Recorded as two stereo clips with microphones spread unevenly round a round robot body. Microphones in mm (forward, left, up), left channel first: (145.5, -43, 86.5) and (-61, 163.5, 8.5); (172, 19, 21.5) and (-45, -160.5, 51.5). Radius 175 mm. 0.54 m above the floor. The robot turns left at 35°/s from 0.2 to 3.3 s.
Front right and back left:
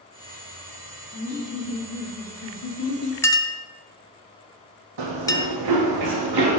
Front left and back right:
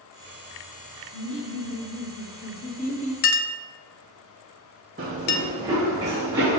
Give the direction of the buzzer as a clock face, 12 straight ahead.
No buzzer in this recording.